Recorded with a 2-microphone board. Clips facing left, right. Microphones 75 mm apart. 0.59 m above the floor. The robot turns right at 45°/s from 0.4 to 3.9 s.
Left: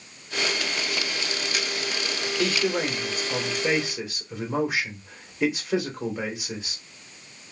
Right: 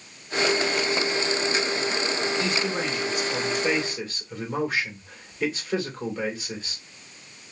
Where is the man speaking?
95° left, 1.7 m; by 6.8 s 165° left, 1.7 m.